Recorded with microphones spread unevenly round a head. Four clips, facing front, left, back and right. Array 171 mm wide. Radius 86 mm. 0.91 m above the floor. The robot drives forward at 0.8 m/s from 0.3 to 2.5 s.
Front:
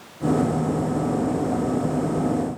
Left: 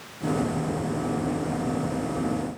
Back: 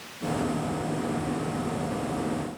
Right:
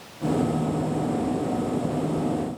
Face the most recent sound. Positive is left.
No sound to turn to.